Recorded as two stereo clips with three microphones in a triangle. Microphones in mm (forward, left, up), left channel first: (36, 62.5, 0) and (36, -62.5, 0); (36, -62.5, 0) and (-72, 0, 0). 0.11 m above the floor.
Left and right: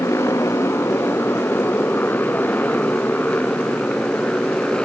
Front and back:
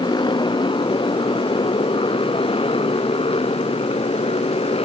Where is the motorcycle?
20° left; by 4.8 s 10° left.